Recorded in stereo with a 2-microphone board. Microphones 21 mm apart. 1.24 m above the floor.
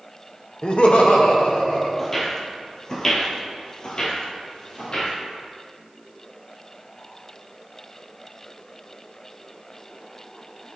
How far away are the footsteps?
About 1.6 m.